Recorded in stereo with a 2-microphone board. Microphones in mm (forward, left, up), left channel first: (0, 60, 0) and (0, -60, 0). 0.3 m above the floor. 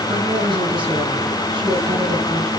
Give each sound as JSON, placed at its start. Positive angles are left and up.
{"t": 0.1, "sound": "a woman speaking", "side_deg": -40, "distance_m": 3.0}